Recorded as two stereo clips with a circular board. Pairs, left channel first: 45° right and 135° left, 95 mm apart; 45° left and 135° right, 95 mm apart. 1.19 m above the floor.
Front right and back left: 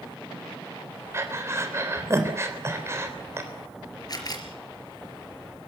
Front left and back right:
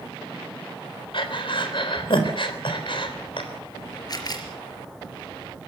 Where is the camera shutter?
Straight ahead, 4 m.